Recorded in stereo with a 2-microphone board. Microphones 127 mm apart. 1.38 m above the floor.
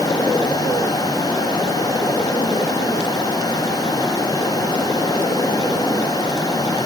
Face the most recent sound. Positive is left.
No sound to turn to.